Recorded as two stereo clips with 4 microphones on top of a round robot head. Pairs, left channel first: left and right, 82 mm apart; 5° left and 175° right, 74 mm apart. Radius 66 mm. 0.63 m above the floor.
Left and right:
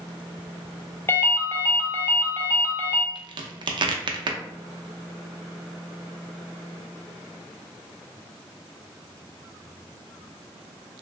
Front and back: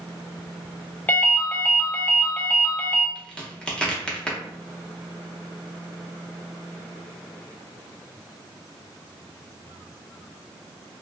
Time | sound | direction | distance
1.1 | a ringtone | 55° left | 0.7 m
3.1 | a crack | 75° right | 0.5 m